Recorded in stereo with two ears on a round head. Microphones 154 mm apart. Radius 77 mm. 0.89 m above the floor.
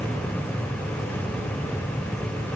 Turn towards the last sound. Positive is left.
No sound to turn to.